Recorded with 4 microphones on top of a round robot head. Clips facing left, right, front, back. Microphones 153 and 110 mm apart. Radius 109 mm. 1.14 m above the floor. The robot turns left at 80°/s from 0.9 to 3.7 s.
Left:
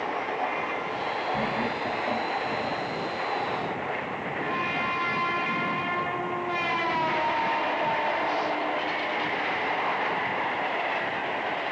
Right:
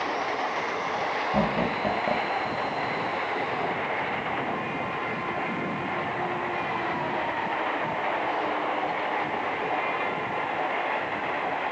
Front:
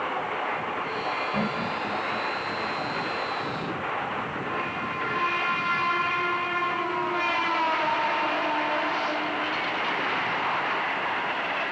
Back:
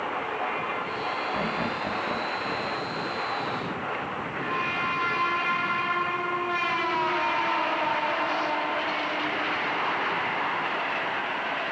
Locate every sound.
1.3 s laughter: 85° right, 0.8 m; by 2.8 s 155° left, 0.8 m